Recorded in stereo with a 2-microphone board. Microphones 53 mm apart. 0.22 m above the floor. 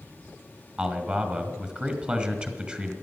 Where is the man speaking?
20° right (ahead or behind), 1.8 m.